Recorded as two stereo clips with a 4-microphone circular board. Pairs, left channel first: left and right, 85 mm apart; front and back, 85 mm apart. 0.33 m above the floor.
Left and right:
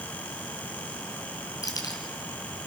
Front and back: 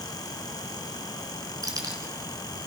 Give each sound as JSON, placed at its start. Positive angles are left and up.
{"t": 1.6, "sound": "keys jangling", "azimuth_deg": 135, "distance_m": 3.0}